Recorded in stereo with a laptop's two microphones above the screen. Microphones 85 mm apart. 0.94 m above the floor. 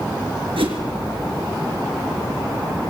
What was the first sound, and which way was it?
A whoosh, 80° right.